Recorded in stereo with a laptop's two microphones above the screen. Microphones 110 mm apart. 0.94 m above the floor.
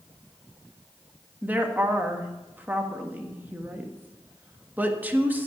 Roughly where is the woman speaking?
Centre.